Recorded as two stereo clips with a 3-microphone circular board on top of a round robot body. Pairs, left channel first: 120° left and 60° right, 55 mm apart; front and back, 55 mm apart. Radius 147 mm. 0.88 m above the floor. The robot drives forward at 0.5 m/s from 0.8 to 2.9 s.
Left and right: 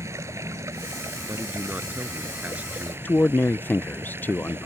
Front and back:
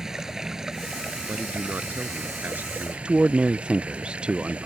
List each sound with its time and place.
0.0 s running water: 100° right; by 4.7 s 110° right
1.3 s a man speaking: 120° right; by 3.0 s 125° right
3.0 s a man speaking: 125° left